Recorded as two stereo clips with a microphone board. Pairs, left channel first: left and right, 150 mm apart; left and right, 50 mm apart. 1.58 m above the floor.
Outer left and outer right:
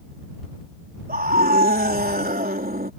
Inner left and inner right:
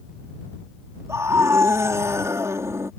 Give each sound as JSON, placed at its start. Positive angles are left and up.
{"t": 1.1, "sound": "a scream", "side_deg": -80}